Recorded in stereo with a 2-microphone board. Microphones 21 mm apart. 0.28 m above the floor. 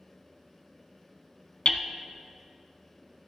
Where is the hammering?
65° left (ahead or behind), 0.6 m.